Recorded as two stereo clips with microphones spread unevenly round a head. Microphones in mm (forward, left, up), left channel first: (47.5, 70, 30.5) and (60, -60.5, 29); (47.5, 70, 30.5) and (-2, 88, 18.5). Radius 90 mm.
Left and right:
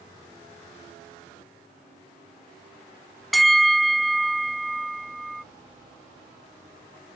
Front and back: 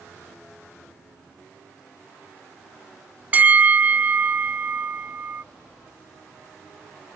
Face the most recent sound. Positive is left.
turn(degrees=-175)